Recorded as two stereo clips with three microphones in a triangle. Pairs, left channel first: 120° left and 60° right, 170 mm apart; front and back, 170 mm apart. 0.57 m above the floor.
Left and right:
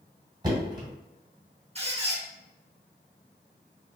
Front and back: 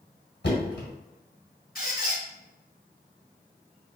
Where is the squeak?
15° right, 1.0 m.